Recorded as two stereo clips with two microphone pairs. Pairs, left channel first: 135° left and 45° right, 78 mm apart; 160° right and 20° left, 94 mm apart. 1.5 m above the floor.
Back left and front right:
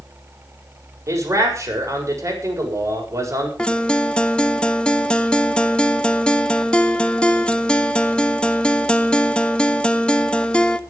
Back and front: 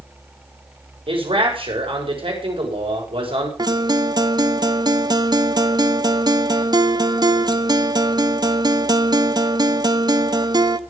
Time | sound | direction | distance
1.1 | a man speaking | 5° left | 6.5 m
3.6 | a guitar | 55° left | 0.9 m